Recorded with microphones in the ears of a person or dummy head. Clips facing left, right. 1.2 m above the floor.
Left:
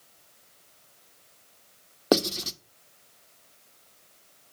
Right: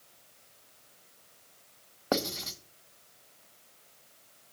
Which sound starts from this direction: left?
Writing, at 2.1 s.